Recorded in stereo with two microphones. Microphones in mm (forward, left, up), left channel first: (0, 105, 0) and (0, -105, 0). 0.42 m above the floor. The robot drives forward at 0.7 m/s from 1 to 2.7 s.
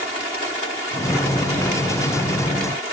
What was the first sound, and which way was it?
Only background noise.